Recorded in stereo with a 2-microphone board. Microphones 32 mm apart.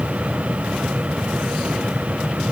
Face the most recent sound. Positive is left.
No sound to turn to.